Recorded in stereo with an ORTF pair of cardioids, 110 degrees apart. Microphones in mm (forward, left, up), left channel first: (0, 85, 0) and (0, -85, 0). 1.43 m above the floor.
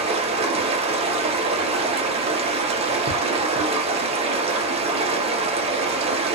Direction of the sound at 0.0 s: 40° right.